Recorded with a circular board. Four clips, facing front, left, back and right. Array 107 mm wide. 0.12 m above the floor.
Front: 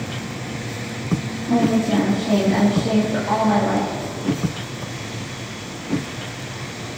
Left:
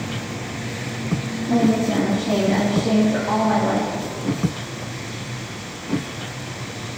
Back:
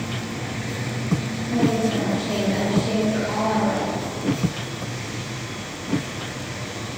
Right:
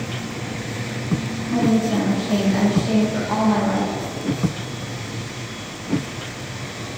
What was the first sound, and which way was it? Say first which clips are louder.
A woman speaking: left 1 dB, front 3 dB; 40° left.